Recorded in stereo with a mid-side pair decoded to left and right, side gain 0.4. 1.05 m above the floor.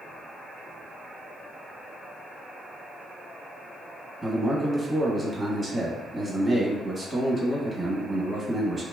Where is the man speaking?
25° right, 1.1 m.